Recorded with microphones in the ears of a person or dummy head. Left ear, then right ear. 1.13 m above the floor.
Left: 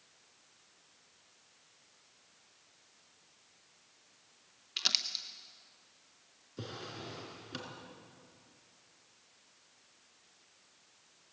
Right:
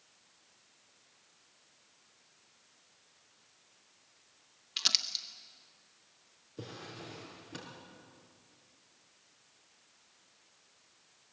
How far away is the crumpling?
About 0.8 m.